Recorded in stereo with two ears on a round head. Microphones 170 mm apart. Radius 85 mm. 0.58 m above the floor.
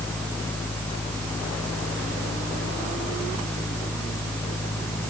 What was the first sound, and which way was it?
Only background noise.